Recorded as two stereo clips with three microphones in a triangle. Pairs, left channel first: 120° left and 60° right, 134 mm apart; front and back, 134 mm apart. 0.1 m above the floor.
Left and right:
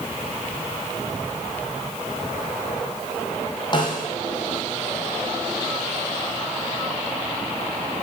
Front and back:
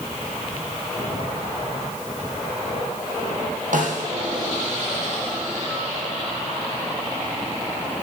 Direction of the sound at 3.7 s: 175° left.